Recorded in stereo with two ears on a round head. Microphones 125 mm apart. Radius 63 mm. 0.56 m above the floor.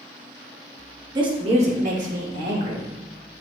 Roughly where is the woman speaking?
Right.